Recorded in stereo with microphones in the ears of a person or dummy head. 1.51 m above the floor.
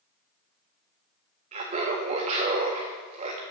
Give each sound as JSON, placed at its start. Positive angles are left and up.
{"t": 1.5, "sound": "laughter", "side_deg": -35, "distance_m": 0.8}